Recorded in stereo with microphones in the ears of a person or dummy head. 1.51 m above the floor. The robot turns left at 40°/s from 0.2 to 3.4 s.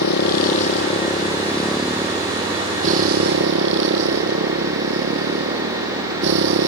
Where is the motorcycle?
65° left; by 6.7 s 60° right.